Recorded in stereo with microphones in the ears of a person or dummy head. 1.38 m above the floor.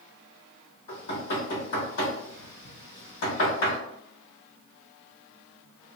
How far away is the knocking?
About 1.7 m.